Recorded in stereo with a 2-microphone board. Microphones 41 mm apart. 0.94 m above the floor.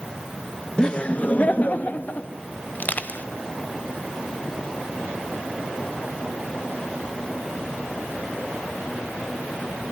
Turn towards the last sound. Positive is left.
turn(degrees=50)  # may be behind; listen again after turning